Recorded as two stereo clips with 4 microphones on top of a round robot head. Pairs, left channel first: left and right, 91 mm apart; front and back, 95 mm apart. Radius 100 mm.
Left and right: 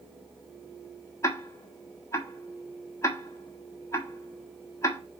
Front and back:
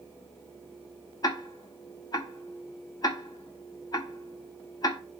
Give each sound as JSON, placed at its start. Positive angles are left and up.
{"t": 1.2, "sound": "ticking", "azimuth_deg": 40, "distance_m": 1.4}